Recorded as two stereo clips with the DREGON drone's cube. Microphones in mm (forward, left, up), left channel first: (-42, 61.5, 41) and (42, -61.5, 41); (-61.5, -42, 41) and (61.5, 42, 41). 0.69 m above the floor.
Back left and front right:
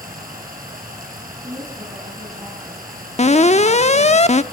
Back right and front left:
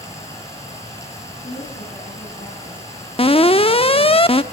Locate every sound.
0.0 s running water: 75° right, 4.5 m
1.4 s a woman speaking: 120° right, 7 m
3.2 s an alarm: 165° left, 0.7 m